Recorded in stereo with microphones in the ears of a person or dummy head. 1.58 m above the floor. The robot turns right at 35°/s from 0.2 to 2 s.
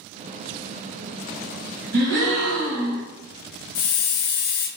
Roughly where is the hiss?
Left.